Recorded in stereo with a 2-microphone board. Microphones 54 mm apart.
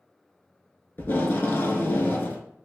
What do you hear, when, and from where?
1.0 s tape being pulled: 45° left (ahead or behind), 0.6 m